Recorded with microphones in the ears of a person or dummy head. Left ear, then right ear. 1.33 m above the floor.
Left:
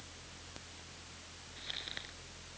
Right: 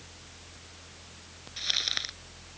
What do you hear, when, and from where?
1.6 s crumpling: 50° right (ahead or behind)